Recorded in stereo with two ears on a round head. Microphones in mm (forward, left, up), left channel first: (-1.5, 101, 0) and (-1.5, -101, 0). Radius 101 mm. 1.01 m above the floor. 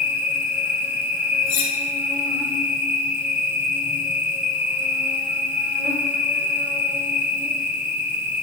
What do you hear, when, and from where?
0.0 s an insect: 10° right (ahead or behind), 0.8 m
1.5 s cutlery clinking: 85° left, 1.8 m